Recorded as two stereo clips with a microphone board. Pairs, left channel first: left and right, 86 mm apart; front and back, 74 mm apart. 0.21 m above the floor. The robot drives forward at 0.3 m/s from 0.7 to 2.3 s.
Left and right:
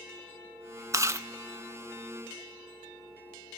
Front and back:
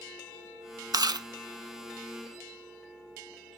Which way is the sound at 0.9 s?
140° right.